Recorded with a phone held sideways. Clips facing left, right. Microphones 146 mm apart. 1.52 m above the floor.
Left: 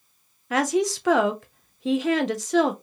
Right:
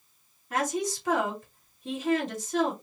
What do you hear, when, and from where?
0.5 s a woman speaking: 80° left, 0.6 m